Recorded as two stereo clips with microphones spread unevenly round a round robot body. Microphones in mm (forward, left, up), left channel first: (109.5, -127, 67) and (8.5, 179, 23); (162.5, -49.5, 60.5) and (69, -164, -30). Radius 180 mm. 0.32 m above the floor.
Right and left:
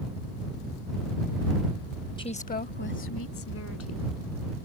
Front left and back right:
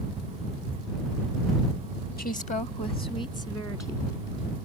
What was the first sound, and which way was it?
A woman speaking, 5° left.